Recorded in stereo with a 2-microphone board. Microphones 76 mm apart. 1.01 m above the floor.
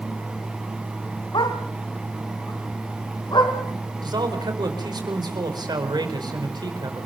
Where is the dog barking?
80° left, 3 m.